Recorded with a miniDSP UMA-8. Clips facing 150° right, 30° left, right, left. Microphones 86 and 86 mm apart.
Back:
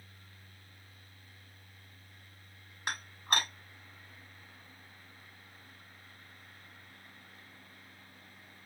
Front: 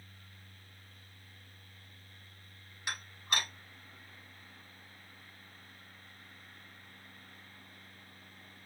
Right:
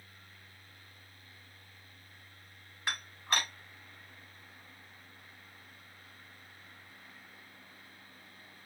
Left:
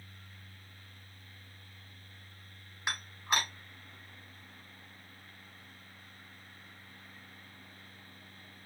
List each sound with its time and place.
2.9 s dishes clattering: 165° left, 2.5 m